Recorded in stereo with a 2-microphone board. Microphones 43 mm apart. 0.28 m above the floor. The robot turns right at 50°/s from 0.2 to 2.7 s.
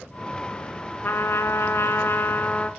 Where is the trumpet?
60° left, 0.7 m; by 2.7 s 145° left, 0.7 m.